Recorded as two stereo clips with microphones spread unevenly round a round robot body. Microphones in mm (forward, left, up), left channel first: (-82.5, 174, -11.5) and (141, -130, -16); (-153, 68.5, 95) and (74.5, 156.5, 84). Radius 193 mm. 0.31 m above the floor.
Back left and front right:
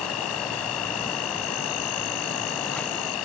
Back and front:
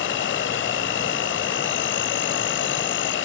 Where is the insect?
160° left.